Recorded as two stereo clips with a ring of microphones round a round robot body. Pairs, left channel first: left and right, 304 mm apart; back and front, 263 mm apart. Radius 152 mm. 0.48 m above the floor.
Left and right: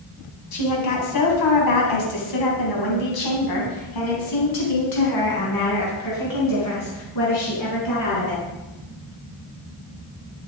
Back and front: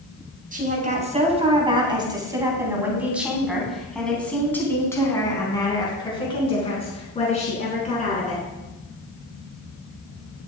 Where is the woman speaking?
60° left, 4 m; by 8.4 s 120° left, 6.5 m.